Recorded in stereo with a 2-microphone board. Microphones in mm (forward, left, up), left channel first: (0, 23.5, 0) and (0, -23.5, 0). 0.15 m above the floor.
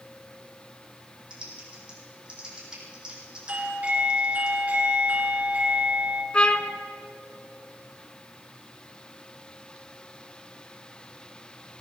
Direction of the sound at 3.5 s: 35° right (ahead or behind).